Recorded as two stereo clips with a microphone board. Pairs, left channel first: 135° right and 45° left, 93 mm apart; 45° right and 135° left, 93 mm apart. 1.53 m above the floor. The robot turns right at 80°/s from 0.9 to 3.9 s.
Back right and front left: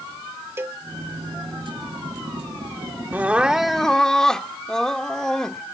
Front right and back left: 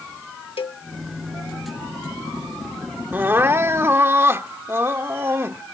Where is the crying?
90° left; by 5.6 s 150° left.